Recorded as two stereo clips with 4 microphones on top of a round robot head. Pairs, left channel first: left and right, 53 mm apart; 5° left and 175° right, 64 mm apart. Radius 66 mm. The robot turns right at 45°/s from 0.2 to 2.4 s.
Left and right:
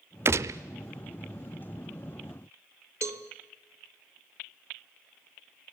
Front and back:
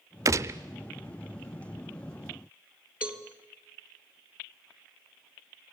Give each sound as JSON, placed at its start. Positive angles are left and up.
{"t": 0.2, "sound": "a gunshot", "azimuth_deg": -135, "distance_m": 0.7}
{"t": 3.0, "sound": "a cowbell", "azimuth_deg": -105, "distance_m": 1.9}